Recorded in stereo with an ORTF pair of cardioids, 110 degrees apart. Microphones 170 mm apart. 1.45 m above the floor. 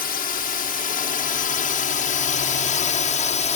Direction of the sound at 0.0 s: 60° left.